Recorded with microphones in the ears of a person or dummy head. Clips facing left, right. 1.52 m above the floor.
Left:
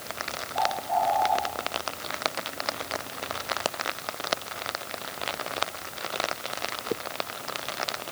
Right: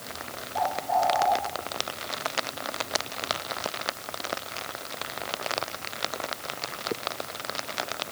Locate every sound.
0.6 s a bird: 55° right (ahead or behind), 4 m